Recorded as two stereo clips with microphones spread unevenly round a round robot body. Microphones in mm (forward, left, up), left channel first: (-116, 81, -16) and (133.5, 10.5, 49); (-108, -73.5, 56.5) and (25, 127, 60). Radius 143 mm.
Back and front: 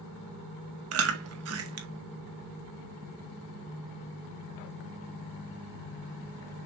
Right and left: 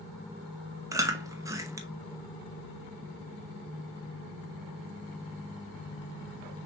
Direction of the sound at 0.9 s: 15° right.